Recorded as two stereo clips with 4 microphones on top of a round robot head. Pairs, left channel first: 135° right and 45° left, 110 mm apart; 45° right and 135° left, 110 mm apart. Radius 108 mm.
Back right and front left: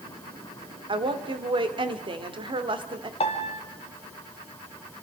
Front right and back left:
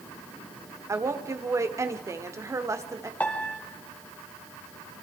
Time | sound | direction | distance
0.9 | a woman speaking | 75° left | 1.9 m
3.2 | a piano | 120° right | 2 m